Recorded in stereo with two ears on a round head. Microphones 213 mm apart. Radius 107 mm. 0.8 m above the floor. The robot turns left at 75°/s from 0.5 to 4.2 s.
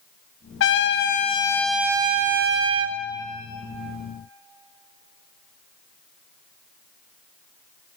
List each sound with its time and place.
0.6 s a trumpet: 85° left, 1.7 m; by 3.0 s 95° right, 1.7 m